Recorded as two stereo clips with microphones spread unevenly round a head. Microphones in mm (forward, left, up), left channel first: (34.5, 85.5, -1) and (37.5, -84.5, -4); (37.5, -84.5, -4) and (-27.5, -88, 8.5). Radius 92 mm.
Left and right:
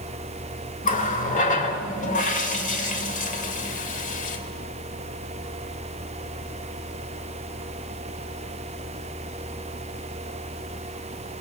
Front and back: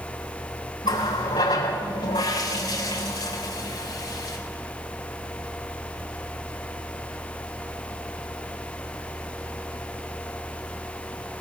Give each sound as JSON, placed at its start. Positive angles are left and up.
{"t": 0.8, "sound": "a running tap", "azimuth_deg": 50, "distance_m": 2.5}